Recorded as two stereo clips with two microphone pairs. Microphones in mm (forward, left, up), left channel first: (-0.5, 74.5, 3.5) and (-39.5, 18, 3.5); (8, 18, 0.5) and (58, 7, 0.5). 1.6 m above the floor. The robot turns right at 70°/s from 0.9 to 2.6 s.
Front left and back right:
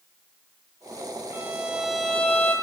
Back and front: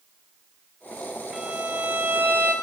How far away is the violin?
About 1.0 m.